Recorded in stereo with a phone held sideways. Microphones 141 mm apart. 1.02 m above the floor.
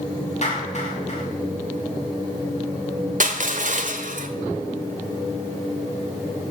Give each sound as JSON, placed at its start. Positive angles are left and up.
{"t": 0.4, "sound": "a clap", "side_deg": 50, "distance_m": 6.0}
{"t": 3.2, "sound": "crushing", "side_deg": -60, "distance_m": 1.4}